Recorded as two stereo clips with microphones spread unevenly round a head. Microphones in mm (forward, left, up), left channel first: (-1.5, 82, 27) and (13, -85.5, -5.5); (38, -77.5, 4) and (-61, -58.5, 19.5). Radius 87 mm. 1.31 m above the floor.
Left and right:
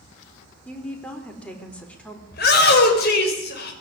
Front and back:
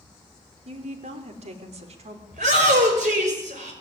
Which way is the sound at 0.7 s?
Straight behind.